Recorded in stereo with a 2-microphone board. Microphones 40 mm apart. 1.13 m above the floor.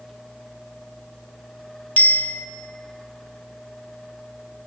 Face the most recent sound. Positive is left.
turn(degrees=45)  # may be behind; listen again after turning